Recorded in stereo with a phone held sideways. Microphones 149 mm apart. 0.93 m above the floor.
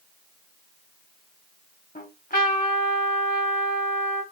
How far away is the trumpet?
About 1.8 m.